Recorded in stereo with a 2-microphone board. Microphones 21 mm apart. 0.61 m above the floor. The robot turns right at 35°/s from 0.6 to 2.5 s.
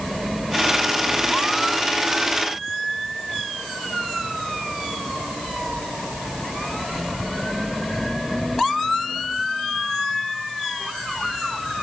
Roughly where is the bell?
No bell in this recording.